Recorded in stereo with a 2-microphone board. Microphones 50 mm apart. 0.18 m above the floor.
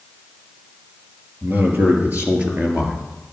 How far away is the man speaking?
About 4 m.